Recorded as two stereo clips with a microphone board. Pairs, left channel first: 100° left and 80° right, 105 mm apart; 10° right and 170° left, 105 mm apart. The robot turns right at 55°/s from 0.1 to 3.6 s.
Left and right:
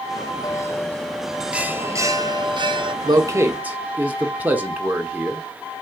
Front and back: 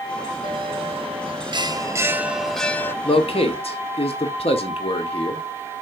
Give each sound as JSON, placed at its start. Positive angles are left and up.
{"t": 0.4, "sound": "a bell", "azimuth_deg": 145, "distance_m": 0.7}
{"t": 3.0, "sound": "a man speaking", "azimuth_deg": -35, "distance_m": 1.4}